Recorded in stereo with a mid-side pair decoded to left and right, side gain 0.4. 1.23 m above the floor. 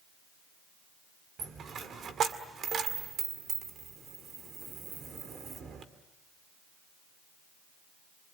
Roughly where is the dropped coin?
Ahead right.